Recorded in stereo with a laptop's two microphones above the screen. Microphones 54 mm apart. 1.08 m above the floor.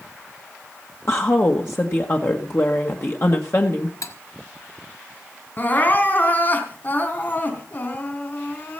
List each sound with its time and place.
1.1 s a woman speaking: 50° left (ahead or behind), 1.5 m
4.0 s cutlery clinking: 80° left, 1.4 m
5.6 s crying: 35° left (ahead or behind), 4 m